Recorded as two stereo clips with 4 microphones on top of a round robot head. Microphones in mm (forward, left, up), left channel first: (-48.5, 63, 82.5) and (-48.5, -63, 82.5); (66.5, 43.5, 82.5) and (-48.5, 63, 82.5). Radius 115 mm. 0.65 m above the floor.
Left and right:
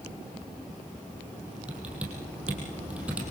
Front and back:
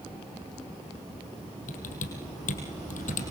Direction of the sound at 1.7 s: 5° right.